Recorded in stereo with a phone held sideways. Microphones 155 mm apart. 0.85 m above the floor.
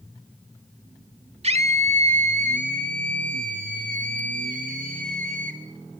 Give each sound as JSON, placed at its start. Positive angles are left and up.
{"t": 1.4, "sound": "a scream", "side_deg": -45, "distance_m": 1.8}